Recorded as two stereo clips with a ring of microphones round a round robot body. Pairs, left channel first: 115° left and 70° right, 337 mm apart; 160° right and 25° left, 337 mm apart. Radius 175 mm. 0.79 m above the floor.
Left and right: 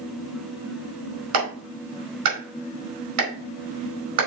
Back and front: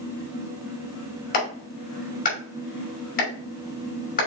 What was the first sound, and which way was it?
A clap, 90° right.